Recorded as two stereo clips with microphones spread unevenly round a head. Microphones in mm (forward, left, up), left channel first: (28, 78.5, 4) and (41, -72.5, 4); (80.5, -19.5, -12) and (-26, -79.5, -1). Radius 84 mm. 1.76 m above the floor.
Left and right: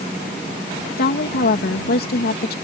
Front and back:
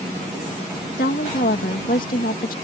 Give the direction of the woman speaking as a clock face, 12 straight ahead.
10 o'clock.